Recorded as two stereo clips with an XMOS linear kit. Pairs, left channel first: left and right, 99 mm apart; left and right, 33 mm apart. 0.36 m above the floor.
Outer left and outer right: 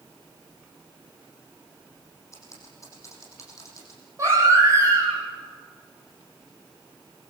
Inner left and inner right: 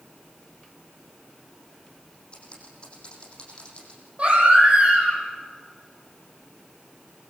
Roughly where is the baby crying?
Right.